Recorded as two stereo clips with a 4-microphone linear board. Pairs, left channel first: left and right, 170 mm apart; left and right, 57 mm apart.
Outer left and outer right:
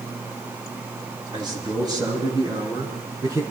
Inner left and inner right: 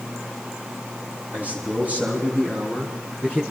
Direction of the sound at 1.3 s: 25° right (ahead or behind).